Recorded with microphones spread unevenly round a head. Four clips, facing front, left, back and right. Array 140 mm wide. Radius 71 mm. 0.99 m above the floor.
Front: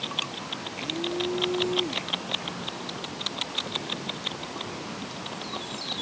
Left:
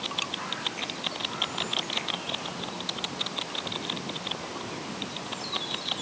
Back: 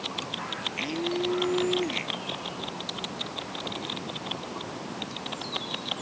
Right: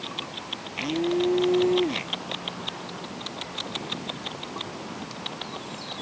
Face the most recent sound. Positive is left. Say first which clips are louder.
# right 12 dB, back 1 dB
turn(degrees=-100)